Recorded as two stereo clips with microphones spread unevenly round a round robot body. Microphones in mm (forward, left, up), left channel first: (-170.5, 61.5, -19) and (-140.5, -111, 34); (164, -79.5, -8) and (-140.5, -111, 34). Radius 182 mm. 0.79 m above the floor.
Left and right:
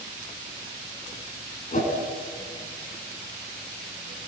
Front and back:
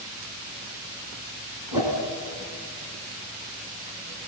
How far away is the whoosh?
About 6 m.